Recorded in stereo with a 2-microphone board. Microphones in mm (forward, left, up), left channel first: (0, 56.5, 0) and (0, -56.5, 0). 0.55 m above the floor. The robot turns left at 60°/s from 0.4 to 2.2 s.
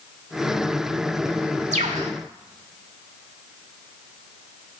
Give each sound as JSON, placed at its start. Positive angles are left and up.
{"t": 1.7, "sound": "a bird", "side_deg": -75, "distance_m": 0.9}